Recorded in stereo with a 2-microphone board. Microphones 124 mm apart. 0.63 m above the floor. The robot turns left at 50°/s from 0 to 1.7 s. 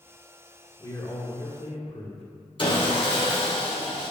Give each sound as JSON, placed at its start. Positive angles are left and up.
{"t": 0.8, "sound": "a man speaking", "azimuth_deg": 145, "distance_m": 2.0}
{"t": 2.6, "sound": "sawing", "side_deg": 45, "distance_m": 1.8}